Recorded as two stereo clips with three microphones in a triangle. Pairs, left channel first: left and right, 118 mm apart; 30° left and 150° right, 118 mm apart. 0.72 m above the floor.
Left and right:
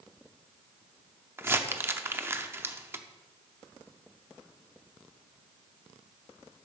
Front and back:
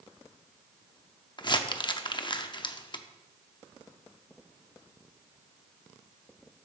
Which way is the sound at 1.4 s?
20° right.